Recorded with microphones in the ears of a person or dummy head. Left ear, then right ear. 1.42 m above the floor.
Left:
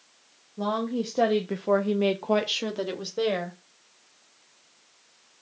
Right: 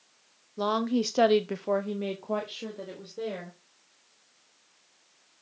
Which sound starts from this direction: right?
A woman speaking, at 0.6 s.